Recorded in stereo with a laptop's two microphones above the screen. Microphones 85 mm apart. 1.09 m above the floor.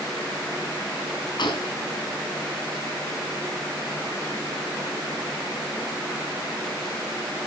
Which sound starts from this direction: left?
A gunshot, at 1.4 s.